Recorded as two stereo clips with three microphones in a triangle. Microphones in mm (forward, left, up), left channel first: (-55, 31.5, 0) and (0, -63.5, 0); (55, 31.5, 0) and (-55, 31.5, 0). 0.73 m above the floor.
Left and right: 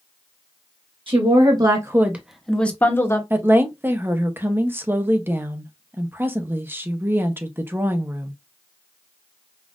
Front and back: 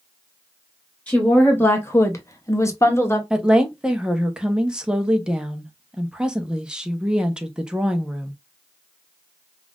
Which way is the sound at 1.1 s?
75° right.